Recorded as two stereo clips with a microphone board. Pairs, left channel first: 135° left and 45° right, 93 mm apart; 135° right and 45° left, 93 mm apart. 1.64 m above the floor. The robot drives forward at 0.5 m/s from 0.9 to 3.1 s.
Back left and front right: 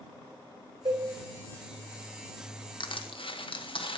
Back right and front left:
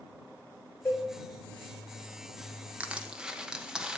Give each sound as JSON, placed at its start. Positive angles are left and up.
{"t": 0.8, "sound": "a cowbell", "azimuth_deg": -65, "distance_m": 4.0}
{"t": 2.8, "sound": "crushing", "azimuth_deg": 120, "distance_m": 1.0}